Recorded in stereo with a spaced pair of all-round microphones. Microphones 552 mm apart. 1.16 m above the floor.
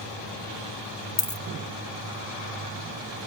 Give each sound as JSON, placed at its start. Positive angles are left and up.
{"t": 1.2, "sound": "a dropped coin", "side_deg": 35, "distance_m": 0.5}